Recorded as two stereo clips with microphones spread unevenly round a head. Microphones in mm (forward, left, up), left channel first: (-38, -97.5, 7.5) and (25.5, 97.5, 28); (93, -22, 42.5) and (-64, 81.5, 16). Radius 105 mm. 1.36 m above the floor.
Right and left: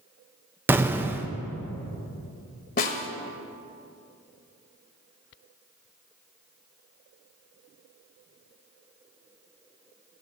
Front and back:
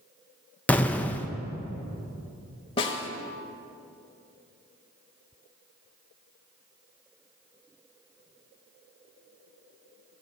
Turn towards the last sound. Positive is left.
turn(degrees=-75)